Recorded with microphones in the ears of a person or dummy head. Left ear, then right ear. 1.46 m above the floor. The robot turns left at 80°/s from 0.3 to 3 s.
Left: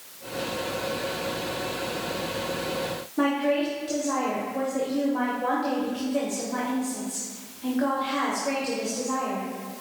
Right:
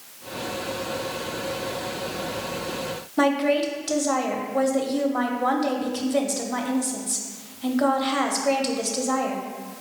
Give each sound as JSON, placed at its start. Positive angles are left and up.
{"t": 3.2, "sound": "a woman speaking", "side_deg": -40, "distance_m": 0.6}